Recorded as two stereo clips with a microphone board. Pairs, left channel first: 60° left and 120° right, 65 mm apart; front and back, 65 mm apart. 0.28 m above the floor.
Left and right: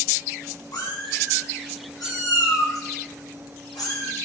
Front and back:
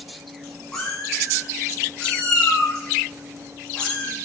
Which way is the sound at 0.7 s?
80° left.